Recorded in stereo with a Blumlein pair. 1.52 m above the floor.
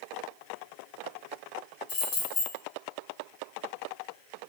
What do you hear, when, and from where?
1.9 s keys jangling: 40° left, 1.2 m